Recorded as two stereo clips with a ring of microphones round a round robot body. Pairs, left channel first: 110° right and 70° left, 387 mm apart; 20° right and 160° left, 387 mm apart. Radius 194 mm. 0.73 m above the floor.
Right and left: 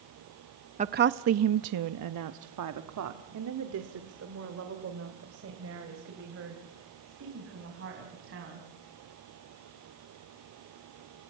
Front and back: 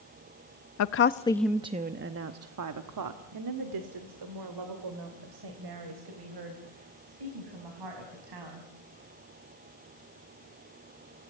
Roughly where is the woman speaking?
Ahead.